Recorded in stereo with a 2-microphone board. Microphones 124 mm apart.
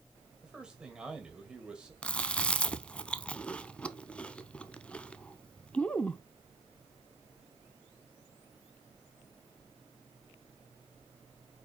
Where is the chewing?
10° left (ahead or behind), 0.6 m.